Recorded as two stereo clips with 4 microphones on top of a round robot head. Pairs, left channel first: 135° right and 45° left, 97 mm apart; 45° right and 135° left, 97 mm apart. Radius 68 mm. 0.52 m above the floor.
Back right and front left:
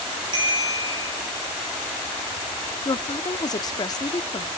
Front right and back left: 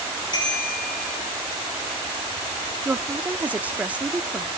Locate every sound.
0.3 s a bicycle bell: straight ahead, 9 m
2.9 s a woman speaking: 155° right, 0.9 m